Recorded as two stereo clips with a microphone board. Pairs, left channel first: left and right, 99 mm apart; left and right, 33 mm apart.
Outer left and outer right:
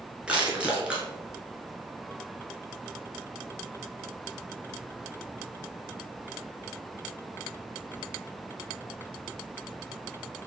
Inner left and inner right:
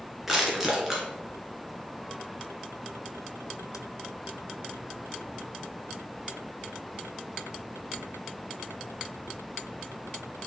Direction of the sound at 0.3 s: 10° right (ahead or behind).